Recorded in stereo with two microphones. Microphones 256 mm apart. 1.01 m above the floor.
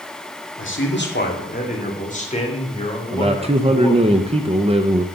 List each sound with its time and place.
0.6 s a man speaking: 50° left (ahead or behind), 1.8 m; by 4.1 s 10° left (ahead or behind), 3 m
3.1 s a man speaking: 25° right (ahead or behind), 0.6 m